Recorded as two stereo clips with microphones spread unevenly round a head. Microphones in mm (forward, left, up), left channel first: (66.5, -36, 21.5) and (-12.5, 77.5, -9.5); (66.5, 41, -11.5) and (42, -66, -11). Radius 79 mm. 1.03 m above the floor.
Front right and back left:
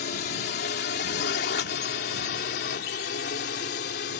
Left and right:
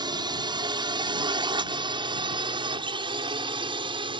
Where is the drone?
60° right; by 4.2 s 65° right.